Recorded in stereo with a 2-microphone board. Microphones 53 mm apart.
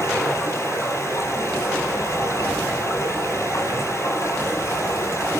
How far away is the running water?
About 5 m.